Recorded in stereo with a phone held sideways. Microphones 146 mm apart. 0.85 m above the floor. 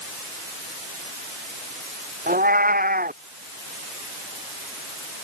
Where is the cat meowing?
80° right.